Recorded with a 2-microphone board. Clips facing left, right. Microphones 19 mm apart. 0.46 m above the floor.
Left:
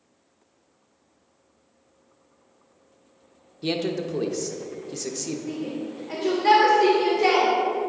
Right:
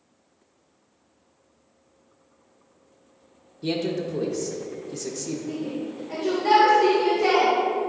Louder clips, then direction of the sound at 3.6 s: Even; 25° left (ahead or behind).